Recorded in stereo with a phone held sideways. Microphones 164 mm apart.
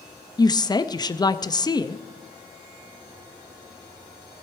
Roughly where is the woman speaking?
Left.